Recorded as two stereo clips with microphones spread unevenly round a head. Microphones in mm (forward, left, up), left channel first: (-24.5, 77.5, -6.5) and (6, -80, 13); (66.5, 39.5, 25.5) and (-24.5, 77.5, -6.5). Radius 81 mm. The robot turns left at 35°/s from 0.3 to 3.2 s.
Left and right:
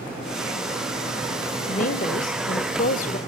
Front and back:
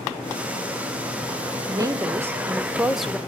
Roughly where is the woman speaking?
Behind left.